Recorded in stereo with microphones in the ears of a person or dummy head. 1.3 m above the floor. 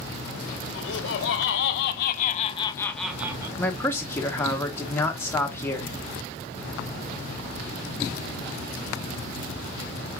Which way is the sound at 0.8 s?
80° left.